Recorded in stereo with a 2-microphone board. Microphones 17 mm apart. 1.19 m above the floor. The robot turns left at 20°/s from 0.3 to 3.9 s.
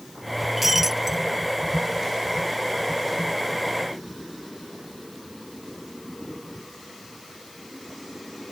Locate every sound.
0.6 s breaking glass: 15° right (ahead or behind); by 1.2 s 25° right (ahead or behind)